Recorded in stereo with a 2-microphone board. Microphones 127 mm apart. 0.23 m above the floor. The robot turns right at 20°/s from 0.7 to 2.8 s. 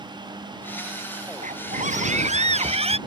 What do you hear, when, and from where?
1.4 s a scream: 75° right (ahead or behind); by 3.0 s 50° right (ahead or behind)